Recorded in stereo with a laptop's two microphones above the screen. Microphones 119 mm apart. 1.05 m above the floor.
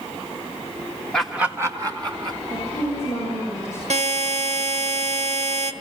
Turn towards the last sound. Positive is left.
turn(degrees=-70)  # may be behind; listen again after turning